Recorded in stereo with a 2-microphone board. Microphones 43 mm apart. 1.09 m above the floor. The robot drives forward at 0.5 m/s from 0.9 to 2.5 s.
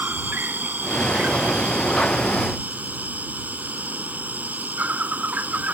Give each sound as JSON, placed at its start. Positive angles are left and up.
{"t": 0.0, "sound": "an insect", "side_deg": -50}